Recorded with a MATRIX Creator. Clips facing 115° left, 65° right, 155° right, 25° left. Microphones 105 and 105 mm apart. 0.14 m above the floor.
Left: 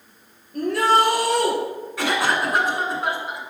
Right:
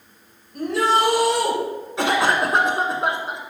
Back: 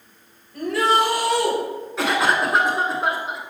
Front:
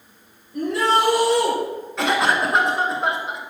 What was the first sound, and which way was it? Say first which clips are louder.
A shout: left 1 dB, even; 90° left.